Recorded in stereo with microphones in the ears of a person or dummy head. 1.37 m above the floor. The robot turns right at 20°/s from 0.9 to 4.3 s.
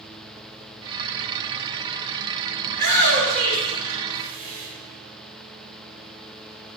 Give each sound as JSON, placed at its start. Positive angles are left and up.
{"t": 2.7, "sound": "a shout", "azimuth_deg": -105, "distance_m": 3.5}